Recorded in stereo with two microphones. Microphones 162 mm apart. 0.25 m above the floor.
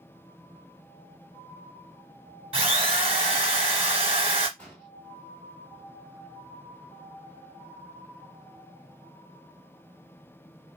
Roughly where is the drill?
Right.